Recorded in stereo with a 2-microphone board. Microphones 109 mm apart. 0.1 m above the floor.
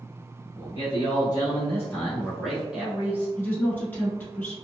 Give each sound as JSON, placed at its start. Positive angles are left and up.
{"t": 0.6, "sound": "a man speaking", "side_deg": 45, "distance_m": 1.5}
{"t": 3.4, "sound": "a woman speaking", "side_deg": 20, "distance_m": 1.1}